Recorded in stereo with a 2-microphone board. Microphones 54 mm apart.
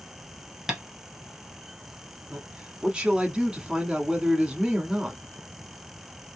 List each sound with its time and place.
0.7 s tapping: 10° right (ahead or behind), 1.2 m
2.3 s a man speaking: 15° right (ahead or behind), 1.1 m